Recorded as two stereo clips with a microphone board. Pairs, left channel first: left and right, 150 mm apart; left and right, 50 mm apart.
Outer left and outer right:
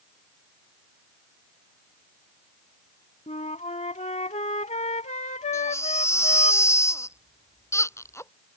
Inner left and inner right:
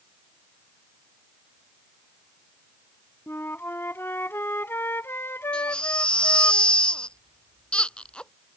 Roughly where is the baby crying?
Centre.